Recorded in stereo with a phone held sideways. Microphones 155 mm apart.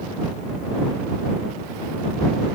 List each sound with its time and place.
Only background noise.